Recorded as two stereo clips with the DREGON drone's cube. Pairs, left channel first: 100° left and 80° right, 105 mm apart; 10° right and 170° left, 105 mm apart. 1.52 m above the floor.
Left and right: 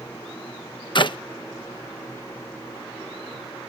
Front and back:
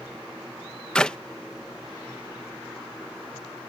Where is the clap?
70° left.